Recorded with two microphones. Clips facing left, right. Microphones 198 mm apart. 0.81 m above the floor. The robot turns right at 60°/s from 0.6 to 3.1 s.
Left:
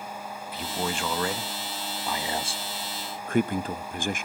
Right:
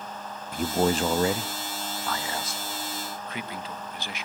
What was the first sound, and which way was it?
A man speaking, 70° right.